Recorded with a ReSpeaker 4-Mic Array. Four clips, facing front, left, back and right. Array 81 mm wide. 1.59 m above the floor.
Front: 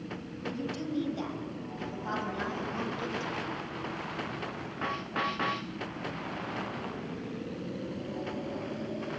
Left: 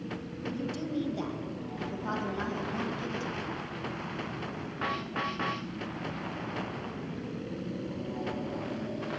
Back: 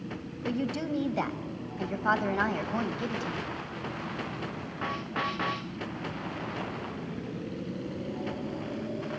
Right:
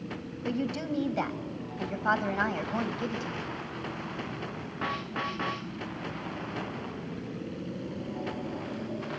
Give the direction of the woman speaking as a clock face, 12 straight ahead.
5 o'clock.